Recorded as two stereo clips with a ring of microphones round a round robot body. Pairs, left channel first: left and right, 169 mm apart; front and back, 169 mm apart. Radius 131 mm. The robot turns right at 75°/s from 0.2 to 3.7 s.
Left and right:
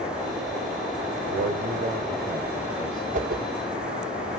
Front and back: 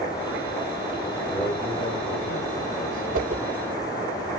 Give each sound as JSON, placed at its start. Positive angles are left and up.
{"t": 1.3, "sound": "a man speaking", "azimuth_deg": -95, "distance_m": 2.0}
{"t": 3.1, "sound": "a whoosh", "azimuth_deg": -140, "distance_m": 0.8}